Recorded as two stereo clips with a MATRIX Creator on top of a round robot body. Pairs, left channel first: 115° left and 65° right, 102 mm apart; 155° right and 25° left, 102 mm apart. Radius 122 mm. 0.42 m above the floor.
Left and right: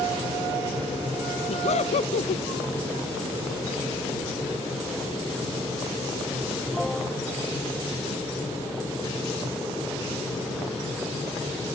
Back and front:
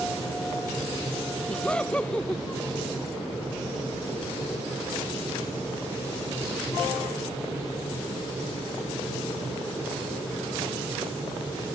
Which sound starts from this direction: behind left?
Laughter, at 1.5 s.